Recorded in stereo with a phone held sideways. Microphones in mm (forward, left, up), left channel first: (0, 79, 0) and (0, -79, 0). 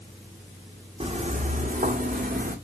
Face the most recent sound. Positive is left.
turn(degrees=-75)  # may be behind; listen again after turning